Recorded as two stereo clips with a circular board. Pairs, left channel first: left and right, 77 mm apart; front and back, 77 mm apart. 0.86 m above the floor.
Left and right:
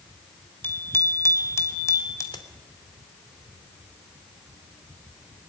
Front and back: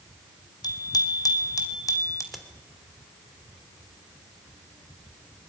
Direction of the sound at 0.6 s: 30° left.